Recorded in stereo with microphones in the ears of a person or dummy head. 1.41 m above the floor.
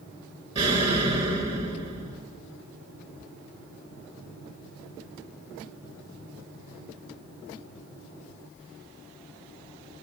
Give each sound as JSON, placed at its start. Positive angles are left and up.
{"t": 0.6, "sound": "an explosion", "side_deg": -35, "distance_m": 7.0}